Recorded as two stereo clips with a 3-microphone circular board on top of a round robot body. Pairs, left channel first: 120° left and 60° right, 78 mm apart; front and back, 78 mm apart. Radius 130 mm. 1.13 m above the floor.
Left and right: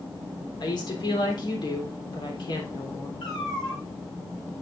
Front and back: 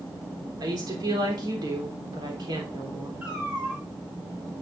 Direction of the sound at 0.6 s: 145° left.